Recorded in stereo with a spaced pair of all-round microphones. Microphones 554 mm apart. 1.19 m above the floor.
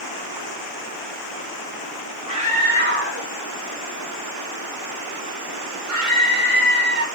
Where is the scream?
10° right (ahead or behind), 1.9 m; by 7.0 s 75° right (ahead or behind), 2.5 m.